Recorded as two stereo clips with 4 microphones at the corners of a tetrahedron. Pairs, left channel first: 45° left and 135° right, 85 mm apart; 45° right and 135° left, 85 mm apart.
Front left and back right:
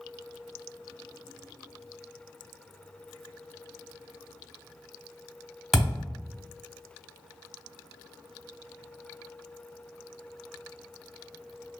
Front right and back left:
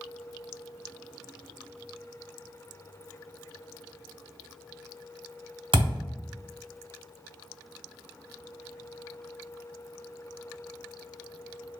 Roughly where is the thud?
Behind left.